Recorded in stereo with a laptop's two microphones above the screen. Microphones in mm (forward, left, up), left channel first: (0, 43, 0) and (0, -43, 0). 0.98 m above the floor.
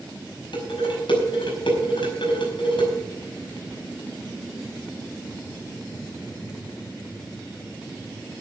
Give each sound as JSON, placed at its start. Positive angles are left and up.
{"t": 0.5, "sound": "dishes clattering", "side_deg": 80, "distance_m": 5.0}